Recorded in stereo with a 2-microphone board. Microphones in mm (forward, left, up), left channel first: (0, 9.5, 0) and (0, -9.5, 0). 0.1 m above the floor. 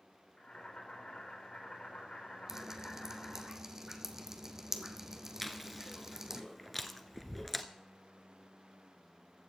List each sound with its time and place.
0.4 s boiling: 65° left (ahead or behind), 5 m
2.5 s dripping: 25° right (ahead or behind), 1.0 m
5.4 s chewing: 5° left (ahead or behind), 1.0 m